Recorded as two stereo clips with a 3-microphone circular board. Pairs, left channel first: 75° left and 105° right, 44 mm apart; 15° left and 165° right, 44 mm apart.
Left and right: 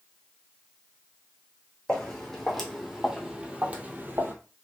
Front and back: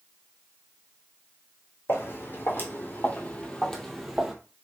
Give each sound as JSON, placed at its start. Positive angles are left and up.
{"t": 1.9, "sound": "footsteps", "azimuth_deg": 0, "distance_m": 1.8}